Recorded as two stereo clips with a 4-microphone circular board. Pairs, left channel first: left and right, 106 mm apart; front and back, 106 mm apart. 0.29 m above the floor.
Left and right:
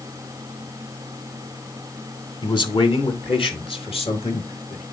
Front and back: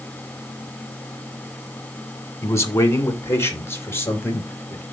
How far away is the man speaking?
About 1.8 m.